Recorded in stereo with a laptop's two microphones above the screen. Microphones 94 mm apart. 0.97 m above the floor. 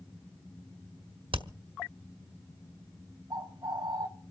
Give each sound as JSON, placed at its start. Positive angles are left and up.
{"t": 1.3, "sound": "hammering", "side_deg": -80, "distance_m": 1.3}
{"t": 3.3, "sound": "a bird", "side_deg": -45, "distance_m": 2.5}